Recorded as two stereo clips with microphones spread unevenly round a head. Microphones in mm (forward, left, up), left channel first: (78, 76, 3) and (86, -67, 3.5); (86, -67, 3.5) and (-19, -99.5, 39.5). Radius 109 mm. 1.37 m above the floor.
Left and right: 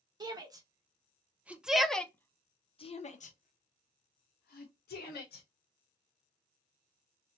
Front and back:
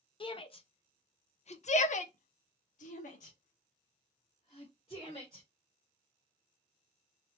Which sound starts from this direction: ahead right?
A shout, at 0.2 s.